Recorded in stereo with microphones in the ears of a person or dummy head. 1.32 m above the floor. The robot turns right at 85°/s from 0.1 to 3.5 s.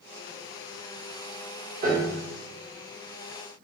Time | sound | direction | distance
1.8 | a piano | 130° right | 3.5 m